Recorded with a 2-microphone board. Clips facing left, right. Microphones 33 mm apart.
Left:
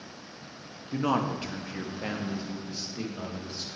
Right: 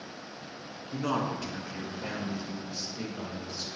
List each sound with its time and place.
0.9 s a man speaking: 30° left (ahead or behind), 1.1 m